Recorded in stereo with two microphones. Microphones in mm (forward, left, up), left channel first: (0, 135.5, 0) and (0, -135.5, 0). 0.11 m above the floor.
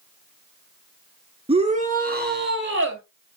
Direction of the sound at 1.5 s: 20° right (ahead or behind).